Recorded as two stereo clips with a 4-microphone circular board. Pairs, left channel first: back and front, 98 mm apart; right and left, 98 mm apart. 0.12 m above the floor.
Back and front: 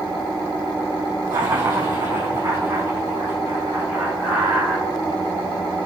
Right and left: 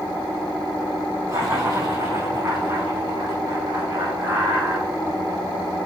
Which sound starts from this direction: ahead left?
Laughter, at 1.3 s.